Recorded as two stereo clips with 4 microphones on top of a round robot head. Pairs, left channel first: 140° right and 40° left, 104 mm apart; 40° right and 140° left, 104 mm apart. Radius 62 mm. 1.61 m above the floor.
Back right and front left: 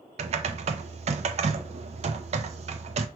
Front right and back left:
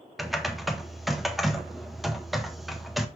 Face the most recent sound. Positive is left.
turn(degrees=50)